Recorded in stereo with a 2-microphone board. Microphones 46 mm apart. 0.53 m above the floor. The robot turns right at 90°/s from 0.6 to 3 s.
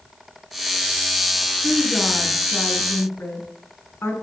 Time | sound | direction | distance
1.6 | a woman speaking | 35° right | 5.5 m